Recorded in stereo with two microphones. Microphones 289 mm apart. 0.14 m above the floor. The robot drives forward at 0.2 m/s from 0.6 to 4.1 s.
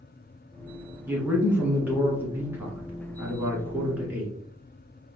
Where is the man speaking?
5° right (ahead or behind), 1.2 m.